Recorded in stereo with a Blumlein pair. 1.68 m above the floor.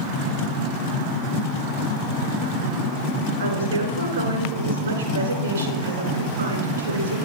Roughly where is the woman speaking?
Ahead right.